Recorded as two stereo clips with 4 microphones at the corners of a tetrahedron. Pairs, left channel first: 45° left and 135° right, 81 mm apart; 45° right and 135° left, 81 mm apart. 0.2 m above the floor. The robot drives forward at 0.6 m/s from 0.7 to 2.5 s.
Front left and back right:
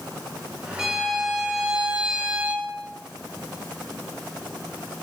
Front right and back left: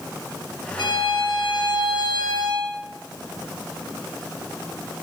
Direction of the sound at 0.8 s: 50° right.